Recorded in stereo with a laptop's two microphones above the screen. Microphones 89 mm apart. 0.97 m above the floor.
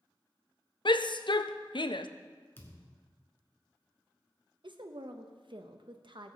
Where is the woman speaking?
65° right (ahead or behind), 0.7 m.